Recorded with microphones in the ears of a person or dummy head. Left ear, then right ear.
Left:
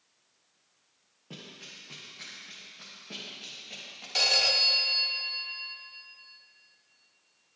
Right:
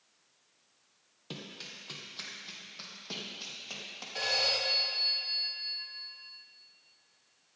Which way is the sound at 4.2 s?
65° left (ahead or behind).